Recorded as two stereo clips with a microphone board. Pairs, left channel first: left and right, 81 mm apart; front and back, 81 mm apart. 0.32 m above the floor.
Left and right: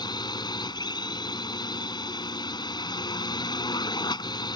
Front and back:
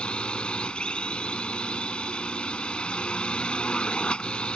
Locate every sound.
0.0 s a drone: 80° left